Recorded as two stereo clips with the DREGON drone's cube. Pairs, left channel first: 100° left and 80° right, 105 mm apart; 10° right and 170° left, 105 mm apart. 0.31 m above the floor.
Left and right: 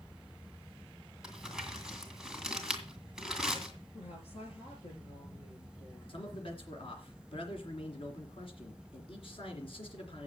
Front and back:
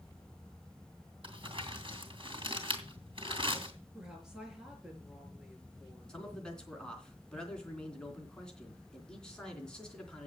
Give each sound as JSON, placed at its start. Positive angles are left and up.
{"t": 1.2, "sound": "crumpling", "azimuth_deg": -165, "distance_m": 2.5}
{"t": 3.9, "sound": "a woman speaking", "azimuth_deg": 85, "distance_m": 5.0}
{"t": 6.1, "sound": "a man speaking", "azimuth_deg": 70, "distance_m": 3.0}